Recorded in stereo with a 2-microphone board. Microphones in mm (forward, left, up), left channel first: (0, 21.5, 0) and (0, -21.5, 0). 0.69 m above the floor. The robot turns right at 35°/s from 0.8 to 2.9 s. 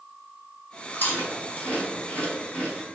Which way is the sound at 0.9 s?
45° left (ahead or behind).